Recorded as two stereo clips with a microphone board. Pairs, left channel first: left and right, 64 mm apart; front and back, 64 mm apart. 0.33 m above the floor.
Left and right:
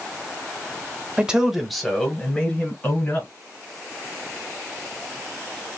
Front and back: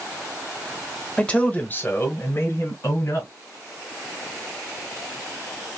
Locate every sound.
1.2 s a man speaking: 50° right, 1.2 m; by 3.3 s 35° left, 2 m